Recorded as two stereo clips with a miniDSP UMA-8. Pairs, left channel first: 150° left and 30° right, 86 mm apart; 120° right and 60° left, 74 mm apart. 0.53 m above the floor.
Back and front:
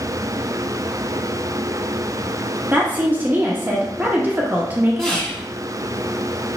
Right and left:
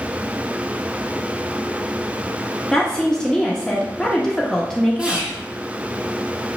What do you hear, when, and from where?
2.7 s a woman speaking: 55° right, 0.7 m
5.0 s whispering: 85° left, 1.1 m